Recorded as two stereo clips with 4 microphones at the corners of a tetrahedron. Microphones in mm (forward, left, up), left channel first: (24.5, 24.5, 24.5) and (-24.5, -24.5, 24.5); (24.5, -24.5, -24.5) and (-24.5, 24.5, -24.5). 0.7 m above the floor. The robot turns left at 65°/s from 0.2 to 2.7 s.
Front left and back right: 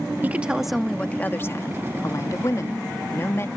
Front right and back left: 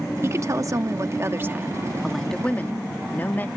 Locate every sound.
0.2 s a woman speaking: 165° left; by 3.5 s 5° left